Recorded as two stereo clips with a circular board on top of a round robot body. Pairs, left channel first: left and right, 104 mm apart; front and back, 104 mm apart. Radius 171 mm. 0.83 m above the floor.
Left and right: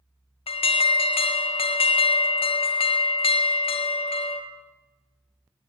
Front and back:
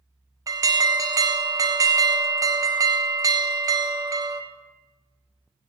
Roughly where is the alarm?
Behind left.